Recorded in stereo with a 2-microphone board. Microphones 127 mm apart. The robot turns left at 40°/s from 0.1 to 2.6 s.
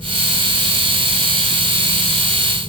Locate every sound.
Only background noise.